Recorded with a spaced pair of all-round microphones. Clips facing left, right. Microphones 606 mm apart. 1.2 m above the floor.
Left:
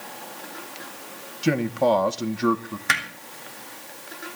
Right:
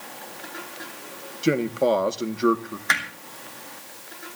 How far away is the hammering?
About 3 m.